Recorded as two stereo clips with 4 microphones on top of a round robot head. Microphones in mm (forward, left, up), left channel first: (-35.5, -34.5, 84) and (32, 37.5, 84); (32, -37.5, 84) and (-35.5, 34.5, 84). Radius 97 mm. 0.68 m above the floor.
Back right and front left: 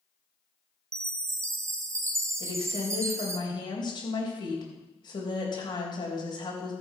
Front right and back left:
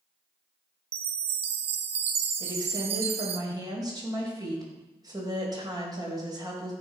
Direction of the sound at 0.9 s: 110° left.